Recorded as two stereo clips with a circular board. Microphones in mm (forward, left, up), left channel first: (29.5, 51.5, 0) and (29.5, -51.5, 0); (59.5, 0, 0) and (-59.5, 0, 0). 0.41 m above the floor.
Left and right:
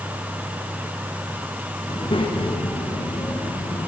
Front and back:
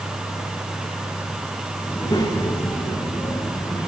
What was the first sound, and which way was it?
A child speaking, 55° left.